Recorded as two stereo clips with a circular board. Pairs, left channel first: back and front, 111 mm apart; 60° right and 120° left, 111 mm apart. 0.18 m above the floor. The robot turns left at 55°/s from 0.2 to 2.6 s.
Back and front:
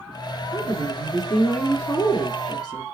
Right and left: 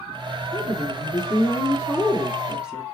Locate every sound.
0.5 s a woman speaking: 50° right, 1.2 m; by 2.8 s 160° right, 1.2 m